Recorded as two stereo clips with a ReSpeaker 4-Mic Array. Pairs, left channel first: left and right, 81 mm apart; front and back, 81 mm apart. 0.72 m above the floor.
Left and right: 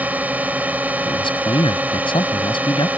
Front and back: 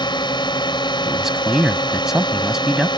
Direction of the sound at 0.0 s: 20° right.